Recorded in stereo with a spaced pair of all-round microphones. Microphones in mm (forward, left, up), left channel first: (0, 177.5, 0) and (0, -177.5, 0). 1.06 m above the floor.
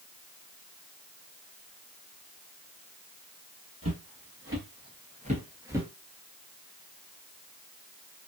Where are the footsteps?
40° right (ahead or behind), 1.6 m; by 5.9 s 5° right (ahead or behind), 1.2 m.